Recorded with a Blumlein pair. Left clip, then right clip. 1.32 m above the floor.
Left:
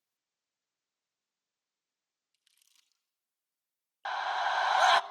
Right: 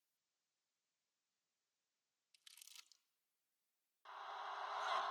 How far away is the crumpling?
About 1.7 m.